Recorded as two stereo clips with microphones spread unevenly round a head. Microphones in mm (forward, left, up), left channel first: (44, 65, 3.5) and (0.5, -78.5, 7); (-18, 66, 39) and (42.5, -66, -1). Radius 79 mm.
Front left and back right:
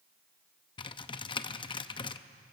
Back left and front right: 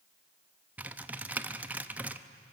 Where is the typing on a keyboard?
15° left, 0.7 m.